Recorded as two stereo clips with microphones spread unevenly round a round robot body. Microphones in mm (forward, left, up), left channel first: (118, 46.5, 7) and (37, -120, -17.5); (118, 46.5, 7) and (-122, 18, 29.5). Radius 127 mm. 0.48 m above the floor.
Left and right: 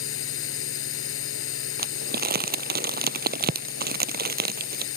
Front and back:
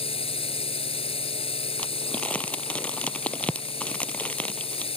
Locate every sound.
0.0 s a drone: 75° left
1.8 s crumpling: 80° right